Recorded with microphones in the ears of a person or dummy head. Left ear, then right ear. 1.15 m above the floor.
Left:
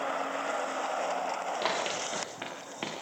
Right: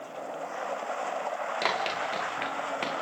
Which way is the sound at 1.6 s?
25° right (ahead or behind).